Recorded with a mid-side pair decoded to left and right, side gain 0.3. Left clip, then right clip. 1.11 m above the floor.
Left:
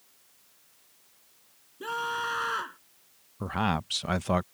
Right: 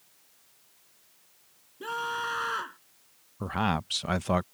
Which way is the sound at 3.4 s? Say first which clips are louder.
Even; 5° right.